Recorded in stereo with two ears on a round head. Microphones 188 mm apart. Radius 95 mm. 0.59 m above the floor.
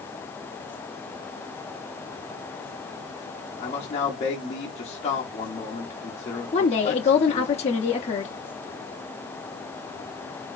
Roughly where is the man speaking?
Left.